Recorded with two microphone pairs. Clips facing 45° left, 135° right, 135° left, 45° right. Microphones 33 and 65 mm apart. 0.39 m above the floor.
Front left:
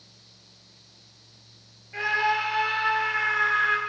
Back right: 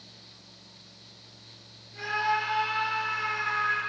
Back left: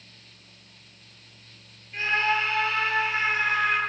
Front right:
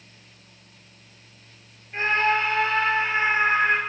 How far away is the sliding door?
No sliding door in this recording.